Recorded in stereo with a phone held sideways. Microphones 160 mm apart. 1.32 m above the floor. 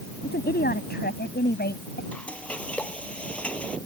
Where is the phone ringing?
I don't hear a phone ringing.